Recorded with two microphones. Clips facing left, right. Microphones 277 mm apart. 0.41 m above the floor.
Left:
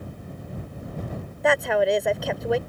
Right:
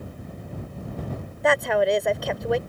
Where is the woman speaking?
Centre (ahead or behind).